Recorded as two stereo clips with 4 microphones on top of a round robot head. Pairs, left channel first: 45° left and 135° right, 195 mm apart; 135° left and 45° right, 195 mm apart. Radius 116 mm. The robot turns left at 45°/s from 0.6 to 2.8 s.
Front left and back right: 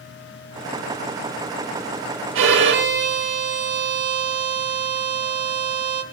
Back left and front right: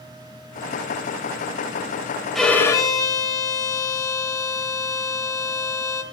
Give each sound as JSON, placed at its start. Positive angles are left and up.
{"t": 2.4, "sound": "a violin", "azimuth_deg": -135, "distance_m": 0.8}